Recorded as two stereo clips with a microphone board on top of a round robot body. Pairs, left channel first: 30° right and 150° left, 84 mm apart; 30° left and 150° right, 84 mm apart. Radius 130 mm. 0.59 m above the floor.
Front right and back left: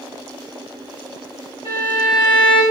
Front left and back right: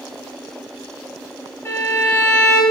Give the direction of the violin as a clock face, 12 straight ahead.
1 o'clock.